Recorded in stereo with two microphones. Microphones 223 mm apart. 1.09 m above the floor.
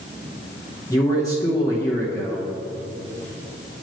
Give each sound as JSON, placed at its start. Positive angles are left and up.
{"t": 0.9, "sound": "a man speaking", "side_deg": 15, "distance_m": 0.7}